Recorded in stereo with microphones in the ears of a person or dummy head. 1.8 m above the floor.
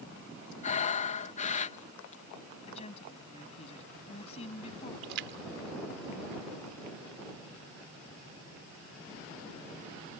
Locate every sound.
0.6 s breathing: 40° left (ahead or behind)
2.7 s a woman speaking: 30° left (ahead or behind)
5.0 s a splash: 60° right (ahead or behind)